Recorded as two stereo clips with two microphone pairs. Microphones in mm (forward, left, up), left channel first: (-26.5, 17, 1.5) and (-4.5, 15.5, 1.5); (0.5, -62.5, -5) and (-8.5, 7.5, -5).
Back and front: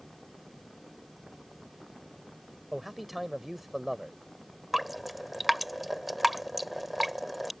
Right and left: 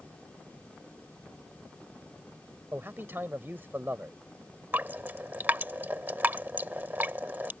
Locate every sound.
2.7 s a man speaking: 70° left
4.7 s dripping: 75° left